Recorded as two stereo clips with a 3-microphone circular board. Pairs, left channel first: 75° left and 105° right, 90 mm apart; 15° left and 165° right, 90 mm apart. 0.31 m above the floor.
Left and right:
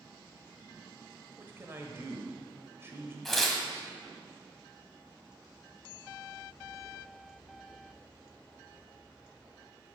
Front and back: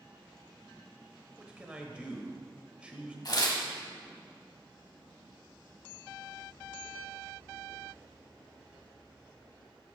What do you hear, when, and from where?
1.4 s a man speaking: 100° right, 0.9 m
3.2 s tearing paper: 10° right, 1.1 m